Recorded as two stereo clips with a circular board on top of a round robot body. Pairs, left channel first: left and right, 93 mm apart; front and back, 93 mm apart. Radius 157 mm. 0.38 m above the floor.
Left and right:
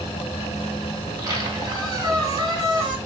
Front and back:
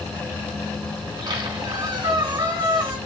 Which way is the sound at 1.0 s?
140° right.